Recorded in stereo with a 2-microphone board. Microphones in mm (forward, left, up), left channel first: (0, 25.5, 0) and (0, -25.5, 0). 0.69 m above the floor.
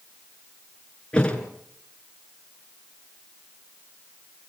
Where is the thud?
15° left (ahead or behind), 3.5 m.